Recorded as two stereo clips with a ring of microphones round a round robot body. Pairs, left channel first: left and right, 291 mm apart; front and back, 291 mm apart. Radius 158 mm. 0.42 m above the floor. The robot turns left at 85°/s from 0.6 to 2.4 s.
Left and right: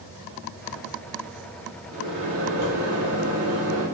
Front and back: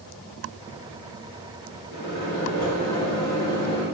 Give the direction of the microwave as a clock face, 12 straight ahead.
1 o'clock.